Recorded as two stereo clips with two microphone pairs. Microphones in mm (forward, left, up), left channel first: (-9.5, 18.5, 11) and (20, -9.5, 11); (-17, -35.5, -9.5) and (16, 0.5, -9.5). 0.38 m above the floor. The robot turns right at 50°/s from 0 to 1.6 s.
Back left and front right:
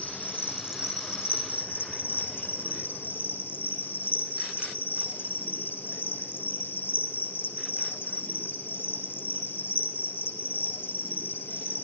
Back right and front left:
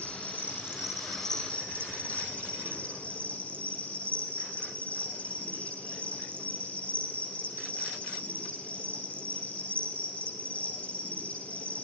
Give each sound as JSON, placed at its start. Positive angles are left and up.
{"t": 0.0, "sound": "an insect", "azimuth_deg": 85, "distance_m": 4.5}